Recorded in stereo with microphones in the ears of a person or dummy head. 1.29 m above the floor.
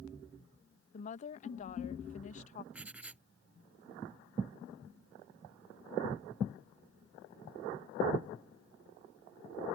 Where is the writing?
5° right (ahead or behind).